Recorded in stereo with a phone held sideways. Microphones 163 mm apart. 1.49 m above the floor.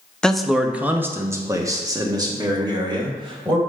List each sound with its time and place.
0.2 s a man speaking: 5° left (ahead or behind), 0.6 m; by 3.6 s 30° right (ahead or behind), 2 m